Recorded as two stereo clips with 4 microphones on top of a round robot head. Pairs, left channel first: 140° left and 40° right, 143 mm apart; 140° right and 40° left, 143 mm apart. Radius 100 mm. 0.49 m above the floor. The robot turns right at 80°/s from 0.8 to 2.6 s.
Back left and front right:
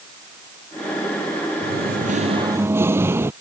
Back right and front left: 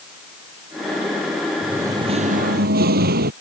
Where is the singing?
45° right; by 3.3 s 30° left.